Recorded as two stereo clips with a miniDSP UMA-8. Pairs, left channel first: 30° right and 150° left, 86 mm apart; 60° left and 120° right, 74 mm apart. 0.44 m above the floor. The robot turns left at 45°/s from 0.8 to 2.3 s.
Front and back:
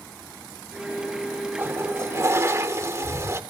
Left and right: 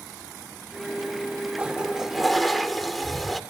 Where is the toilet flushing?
175° right, 1.0 m; by 3.4 s 150° left, 1.0 m.